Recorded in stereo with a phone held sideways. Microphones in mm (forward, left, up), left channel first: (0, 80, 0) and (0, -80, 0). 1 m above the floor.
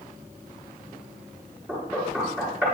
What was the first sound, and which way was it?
Knocking, 15° right (ahead or behind).